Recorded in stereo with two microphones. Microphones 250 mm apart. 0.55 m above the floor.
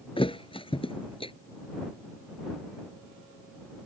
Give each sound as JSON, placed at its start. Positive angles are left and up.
{"t": 0.2, "sound": "a thud", "side_deg": 20}